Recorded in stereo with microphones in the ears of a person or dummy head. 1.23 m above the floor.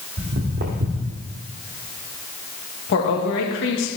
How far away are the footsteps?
About 1.8 m.